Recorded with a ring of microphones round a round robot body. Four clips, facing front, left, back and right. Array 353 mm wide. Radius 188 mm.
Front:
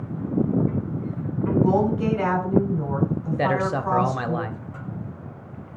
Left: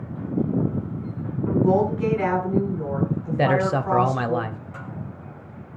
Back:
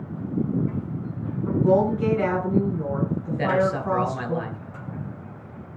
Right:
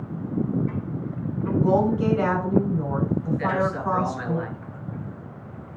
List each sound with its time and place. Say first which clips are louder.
1.4 s a woman speaking: left 1 dB, even; 40° right, 7.5 m
3.4 s a man speaking: left 8 dB, back 1 dB; 65° left, 1.6 m